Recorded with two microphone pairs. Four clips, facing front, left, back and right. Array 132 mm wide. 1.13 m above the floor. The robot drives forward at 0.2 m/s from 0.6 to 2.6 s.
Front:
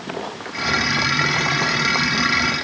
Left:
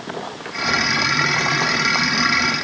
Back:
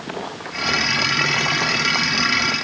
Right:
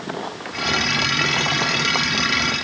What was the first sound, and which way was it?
Only background noise.